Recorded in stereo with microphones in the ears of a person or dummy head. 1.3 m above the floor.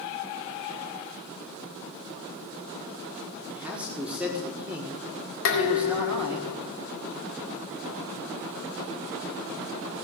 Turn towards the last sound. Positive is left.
turn(degrees=75)  # may be behind; listen again after turning